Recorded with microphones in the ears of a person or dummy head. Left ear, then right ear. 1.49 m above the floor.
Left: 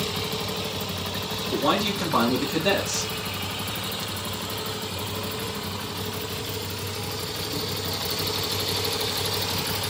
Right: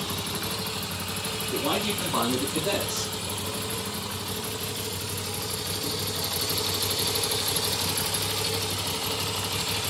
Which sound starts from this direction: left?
A man speaking, at 1.5 s.